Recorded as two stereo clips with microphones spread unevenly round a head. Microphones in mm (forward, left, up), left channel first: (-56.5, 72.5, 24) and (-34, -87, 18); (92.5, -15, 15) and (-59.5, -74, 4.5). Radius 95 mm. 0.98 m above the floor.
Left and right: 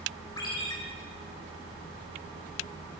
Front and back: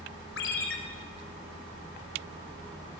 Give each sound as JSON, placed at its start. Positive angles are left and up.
{"t": 0.4, "sound": "a ringtone", "azimuth_deg": 25, "distance_m": 3.5}